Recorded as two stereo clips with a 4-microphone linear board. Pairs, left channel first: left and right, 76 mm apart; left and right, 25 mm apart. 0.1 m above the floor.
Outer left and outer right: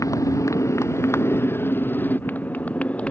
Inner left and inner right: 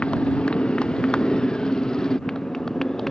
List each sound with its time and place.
0.0 s a motorcycle: 45° left (ahead or behind); by 3.1 s 15° left (ahead or behind)